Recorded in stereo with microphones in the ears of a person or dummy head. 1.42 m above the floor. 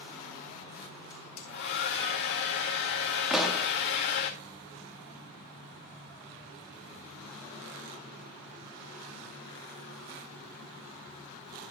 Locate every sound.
1.1 s a hair dryer: 60° left (ahead or behind), 1.8 m
3.3 s a pop: centre (ahead or behind), 1.4 m